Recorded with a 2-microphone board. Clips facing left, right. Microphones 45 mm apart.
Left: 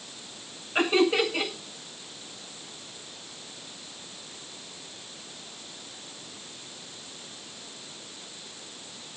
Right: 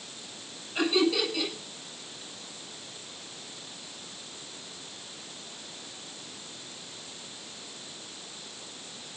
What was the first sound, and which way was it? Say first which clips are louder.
Laughter: left 3 dB; 40° left (ahead or behind).